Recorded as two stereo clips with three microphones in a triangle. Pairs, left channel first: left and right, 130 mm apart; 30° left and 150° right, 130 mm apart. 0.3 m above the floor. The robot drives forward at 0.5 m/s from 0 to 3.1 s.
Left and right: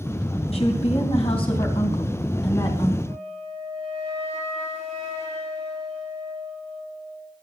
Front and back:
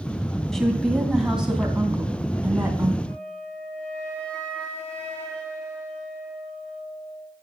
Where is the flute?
50° right, 5 m.